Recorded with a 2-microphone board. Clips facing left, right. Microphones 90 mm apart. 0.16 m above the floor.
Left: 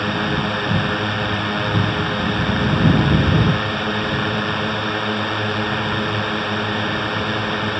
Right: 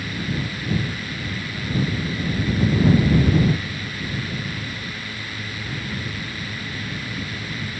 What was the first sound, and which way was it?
A drone, 60° left (ahead or behind).